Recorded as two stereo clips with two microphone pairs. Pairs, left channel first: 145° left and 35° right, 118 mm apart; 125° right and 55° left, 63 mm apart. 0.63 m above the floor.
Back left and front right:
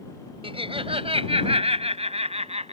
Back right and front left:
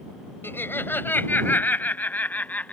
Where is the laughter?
75° right; by 2.7 s 60° right.